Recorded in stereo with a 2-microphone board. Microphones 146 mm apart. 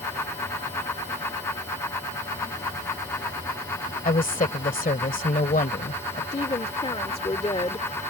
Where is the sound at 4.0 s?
70° left (ahead or behind).